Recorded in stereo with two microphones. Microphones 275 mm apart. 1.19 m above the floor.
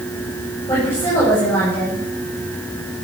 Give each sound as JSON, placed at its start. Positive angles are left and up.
{"t": 0.7, "sound": "a woman speaking", "side_deg": 10, "distance_m": 7.5}